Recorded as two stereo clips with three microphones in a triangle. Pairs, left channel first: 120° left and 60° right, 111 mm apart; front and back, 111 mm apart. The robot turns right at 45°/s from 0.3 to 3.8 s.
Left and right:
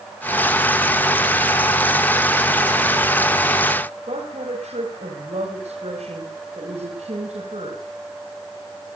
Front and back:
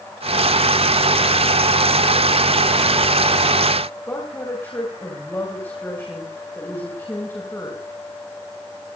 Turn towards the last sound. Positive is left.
turn(degrees=-65)